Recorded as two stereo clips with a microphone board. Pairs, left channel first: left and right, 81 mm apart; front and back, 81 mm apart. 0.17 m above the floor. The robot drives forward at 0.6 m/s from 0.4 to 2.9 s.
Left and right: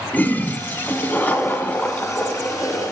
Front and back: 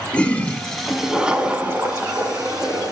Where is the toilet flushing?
55° left, 1.2 m; by 2.9 s 160° left, 1.7 m.